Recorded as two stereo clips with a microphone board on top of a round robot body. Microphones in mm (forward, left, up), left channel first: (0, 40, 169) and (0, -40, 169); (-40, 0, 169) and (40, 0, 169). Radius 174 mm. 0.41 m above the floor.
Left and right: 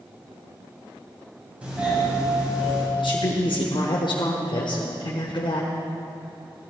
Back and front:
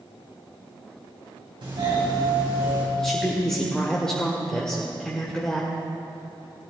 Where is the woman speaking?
100° left, 1.8 m.